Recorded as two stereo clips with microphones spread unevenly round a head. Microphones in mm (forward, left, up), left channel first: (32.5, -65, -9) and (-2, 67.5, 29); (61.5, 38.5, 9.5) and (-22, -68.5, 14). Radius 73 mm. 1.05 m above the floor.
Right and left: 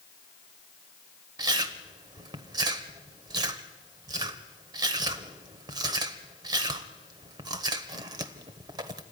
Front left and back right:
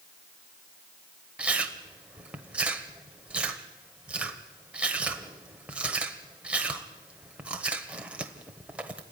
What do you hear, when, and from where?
1.4 s chewing: 150° left, 1.2 m